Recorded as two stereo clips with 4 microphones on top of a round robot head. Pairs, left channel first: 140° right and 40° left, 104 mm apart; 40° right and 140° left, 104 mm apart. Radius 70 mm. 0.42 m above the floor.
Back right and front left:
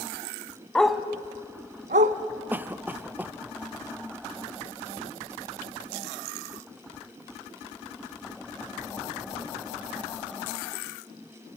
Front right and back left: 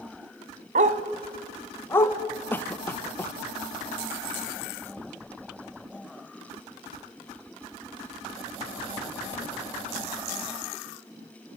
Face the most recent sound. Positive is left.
turn(degrees=-5)